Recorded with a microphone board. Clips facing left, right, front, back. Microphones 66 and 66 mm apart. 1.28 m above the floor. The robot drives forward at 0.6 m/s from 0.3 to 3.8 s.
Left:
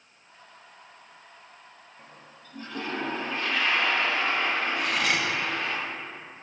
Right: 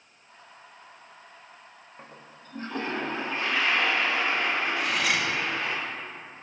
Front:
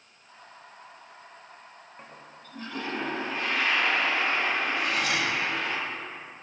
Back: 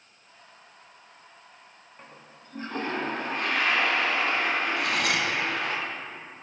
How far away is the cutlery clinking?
About 0.7 m.